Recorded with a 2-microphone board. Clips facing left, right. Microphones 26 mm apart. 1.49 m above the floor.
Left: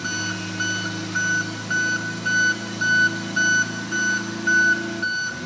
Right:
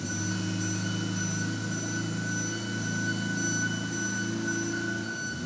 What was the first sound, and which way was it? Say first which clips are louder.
An engine running: left 6 dB; 70° left (ahead or behind).